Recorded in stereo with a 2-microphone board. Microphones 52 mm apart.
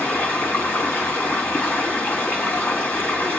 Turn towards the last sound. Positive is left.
turn(degrees=40)  # may be behind; listen again after turning